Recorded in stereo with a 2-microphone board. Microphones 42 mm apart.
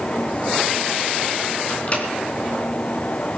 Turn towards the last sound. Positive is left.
turn(degrees=35)  # may be behind; listen again after turning